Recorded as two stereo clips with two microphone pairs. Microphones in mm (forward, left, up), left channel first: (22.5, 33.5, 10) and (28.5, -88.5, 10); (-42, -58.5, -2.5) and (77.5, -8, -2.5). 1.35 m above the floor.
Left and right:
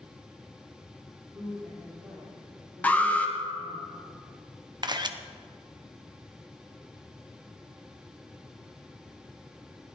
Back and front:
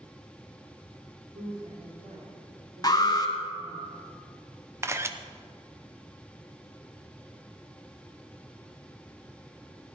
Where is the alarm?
165° left, 1.4 m.